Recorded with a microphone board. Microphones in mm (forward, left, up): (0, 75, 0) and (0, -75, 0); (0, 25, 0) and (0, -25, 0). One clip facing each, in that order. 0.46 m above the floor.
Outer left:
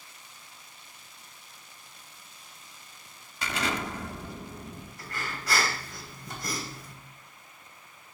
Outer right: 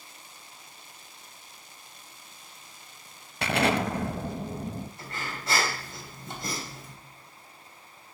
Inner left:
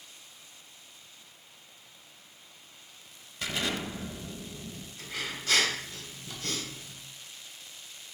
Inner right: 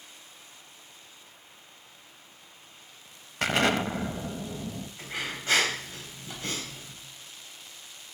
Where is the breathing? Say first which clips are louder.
Even, inner right 1 dB; 25° right (ahead or behind), 3 m.